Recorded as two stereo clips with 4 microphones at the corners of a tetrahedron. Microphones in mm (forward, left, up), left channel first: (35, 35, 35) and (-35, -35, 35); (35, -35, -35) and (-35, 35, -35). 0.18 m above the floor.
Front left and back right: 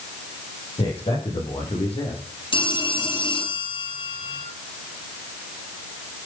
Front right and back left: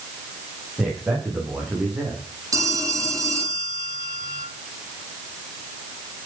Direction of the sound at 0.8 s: 50° left.